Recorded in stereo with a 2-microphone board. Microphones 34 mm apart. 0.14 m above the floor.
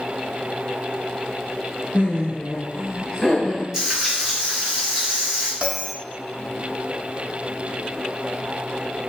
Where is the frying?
15° right (ahead or behind), 1.6 m.